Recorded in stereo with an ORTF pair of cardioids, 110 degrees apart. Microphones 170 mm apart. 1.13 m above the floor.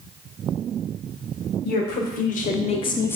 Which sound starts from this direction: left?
A woman speaking, at 1.6 s.